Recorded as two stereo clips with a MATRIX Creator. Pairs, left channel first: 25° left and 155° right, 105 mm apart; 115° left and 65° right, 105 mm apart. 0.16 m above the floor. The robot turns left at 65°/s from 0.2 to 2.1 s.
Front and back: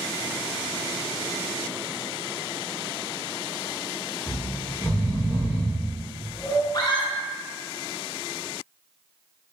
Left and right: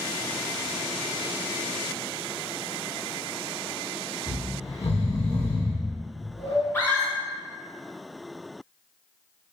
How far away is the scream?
About 1.7 m.